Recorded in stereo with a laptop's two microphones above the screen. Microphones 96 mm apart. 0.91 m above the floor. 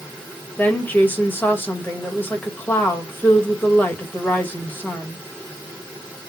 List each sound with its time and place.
0.6 s a woman speaking: 20° left (ahead or behind), 1.1 m